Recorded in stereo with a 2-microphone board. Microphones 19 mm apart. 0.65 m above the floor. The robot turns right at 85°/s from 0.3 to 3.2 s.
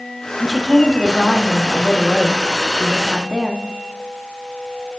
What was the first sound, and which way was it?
A woman speaking, 130° right.